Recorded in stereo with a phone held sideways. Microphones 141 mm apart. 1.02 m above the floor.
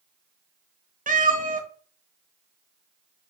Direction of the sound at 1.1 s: 70° right (ahead or behind).